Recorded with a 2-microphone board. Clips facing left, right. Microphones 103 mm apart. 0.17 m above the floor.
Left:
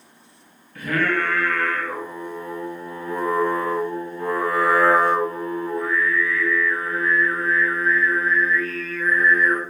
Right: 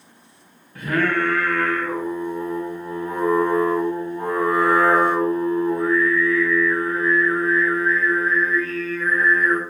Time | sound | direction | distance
0.8 | singing | 20° right (ahead or behind) | 1.6 m